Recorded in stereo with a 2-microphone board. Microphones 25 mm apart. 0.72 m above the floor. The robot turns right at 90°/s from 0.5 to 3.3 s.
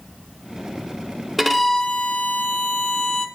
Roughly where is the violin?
Ahead.